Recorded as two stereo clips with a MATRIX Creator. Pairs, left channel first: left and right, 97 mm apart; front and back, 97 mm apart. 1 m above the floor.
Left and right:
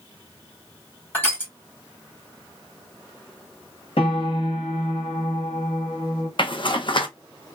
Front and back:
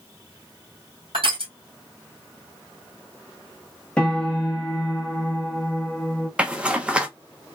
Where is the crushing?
160° left, 1.6 m.